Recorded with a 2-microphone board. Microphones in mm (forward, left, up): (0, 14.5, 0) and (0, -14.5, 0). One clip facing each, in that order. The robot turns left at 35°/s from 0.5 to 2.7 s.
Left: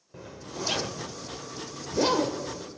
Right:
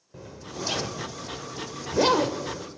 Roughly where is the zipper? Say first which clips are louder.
Even; centre.